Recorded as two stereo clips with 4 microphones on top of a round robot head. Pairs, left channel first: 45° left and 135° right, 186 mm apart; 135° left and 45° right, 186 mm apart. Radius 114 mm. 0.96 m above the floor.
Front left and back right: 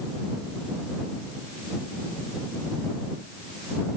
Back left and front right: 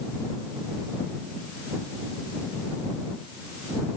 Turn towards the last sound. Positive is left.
No sound to turn to.